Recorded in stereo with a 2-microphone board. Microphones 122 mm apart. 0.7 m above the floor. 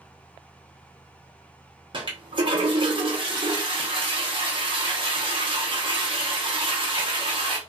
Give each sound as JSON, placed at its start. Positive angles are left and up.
{"t": 1.9, "sound": "a toilet flushing", "side_deg": -40, "distance_m": 1.0}